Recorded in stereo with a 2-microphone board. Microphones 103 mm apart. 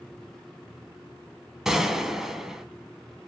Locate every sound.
1.6 s a gunshot: 5° right (ahead or behind), 0.7 m